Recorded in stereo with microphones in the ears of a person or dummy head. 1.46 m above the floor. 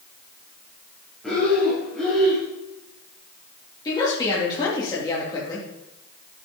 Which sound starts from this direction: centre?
Breathing, at 1.2 s.